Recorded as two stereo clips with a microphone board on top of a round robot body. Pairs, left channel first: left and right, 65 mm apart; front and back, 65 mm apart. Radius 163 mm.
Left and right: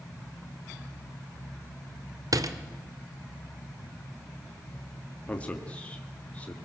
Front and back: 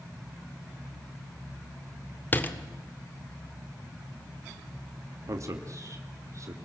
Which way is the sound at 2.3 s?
60° right.